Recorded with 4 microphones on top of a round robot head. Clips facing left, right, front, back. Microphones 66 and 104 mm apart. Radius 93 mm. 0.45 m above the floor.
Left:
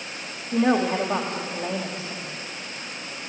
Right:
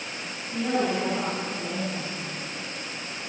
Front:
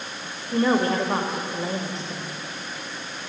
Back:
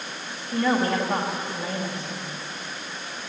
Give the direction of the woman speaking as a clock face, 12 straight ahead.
10 o'clock.